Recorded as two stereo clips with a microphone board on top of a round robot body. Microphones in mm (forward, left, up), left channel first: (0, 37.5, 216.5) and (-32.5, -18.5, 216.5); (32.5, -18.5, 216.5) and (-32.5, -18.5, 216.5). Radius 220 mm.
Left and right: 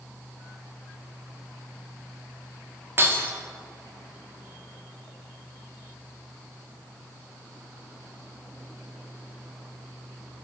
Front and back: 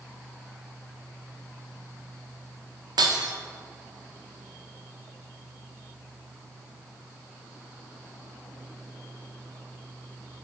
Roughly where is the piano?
I don't hear a piano.